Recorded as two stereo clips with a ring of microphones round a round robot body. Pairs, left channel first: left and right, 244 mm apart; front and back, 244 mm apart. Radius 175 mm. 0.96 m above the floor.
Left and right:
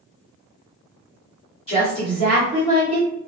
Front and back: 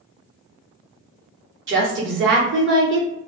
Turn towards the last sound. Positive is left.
turn(degrees=155)